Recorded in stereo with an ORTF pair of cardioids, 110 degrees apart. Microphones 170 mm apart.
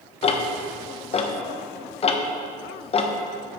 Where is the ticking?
35° left, 0.9 m.